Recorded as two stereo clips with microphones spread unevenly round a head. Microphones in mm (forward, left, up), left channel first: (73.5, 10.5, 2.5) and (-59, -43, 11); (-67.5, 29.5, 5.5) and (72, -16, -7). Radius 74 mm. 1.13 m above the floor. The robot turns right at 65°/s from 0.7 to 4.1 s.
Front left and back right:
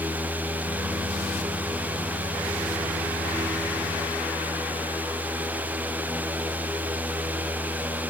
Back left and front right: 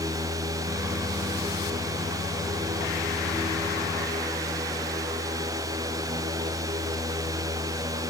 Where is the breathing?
No breathing in this recording.